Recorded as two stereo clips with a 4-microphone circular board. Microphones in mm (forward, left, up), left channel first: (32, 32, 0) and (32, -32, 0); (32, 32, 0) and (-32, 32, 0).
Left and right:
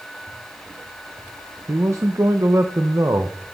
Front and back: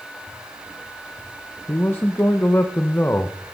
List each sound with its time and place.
1.7 s a man speaking: 55° right, 0.7 m